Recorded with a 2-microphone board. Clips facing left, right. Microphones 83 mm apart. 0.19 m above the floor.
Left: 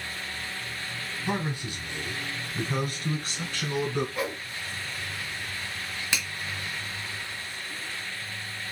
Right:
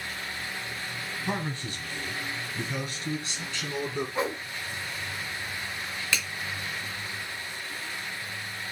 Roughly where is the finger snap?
Centre.